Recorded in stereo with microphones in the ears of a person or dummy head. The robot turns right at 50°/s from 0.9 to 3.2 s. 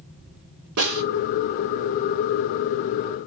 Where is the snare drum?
70° right (ahead or behind), 4.5 m; by 1.0 s 75° right (ahead or behind), 4.5 m.